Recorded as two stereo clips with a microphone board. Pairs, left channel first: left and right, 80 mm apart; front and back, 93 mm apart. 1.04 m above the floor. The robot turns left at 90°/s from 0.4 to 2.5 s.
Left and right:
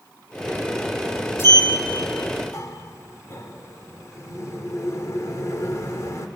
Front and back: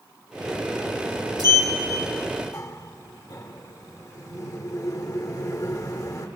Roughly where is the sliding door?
Behind left.